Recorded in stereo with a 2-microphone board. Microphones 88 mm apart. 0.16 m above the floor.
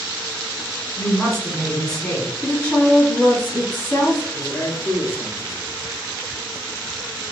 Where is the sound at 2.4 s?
20° left (ahead or behind), 1.5 m.